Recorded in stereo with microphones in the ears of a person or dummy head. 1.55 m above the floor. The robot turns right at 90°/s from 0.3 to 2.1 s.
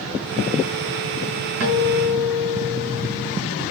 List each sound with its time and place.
1.6 s a guitar: 110° right, 6 m; by 3.3 s 65° right, 6 m